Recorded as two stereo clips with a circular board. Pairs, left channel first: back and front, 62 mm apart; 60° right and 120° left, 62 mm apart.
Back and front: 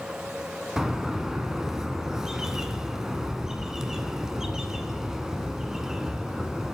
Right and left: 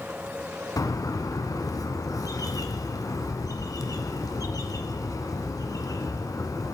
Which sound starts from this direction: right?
A bird, at 0.8 s.